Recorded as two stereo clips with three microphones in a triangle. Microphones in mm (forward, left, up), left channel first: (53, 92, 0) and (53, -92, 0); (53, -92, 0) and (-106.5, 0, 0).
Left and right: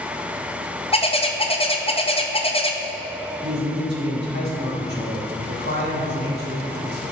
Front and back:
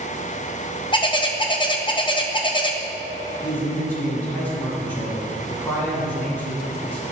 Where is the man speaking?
110° right, 2 m.